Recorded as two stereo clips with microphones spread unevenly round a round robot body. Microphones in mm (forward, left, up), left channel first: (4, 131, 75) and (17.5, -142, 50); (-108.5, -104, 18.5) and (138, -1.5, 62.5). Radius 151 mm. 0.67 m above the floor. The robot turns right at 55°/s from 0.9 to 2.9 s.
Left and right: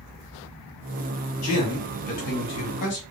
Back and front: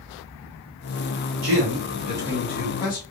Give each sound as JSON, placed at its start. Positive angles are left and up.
{"t": 1.4, "sound": "a man speaking", "azimuth_deg": 60, "distance_m": 1.8}